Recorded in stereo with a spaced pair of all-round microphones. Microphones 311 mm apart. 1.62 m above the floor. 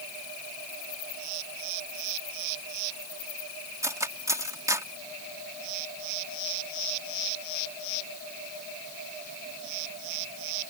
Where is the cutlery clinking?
10° right (ahead or behind).